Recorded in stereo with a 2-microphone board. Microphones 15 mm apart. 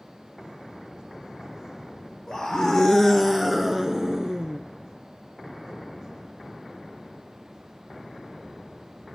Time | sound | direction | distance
2.3 | a scream | 40° left (ahead or behind) | 1.4 m